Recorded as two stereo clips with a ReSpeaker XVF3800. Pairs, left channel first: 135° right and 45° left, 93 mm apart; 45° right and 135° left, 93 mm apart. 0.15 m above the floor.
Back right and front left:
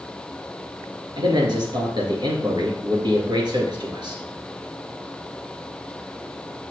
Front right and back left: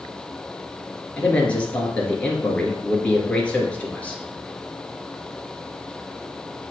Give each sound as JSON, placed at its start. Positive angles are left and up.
{"t": 1.2, "sound": "a man speaking", "azimuth_deg": 30, "distance_m": 2.5}